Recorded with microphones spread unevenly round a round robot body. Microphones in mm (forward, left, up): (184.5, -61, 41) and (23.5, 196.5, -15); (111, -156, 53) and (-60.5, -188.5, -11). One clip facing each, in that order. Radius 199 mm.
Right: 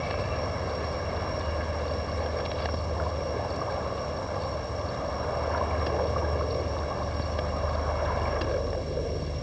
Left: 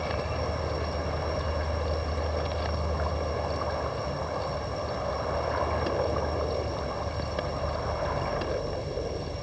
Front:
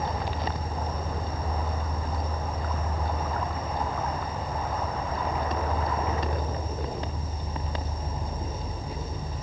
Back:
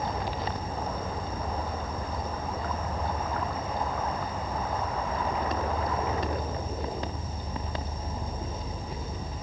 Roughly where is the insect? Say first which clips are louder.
Even, front 1 dB; ahead left.